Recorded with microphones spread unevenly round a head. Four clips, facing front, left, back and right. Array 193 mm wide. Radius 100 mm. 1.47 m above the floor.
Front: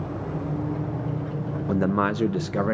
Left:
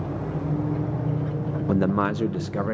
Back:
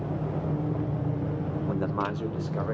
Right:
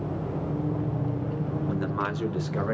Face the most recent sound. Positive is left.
turn(degrees=5)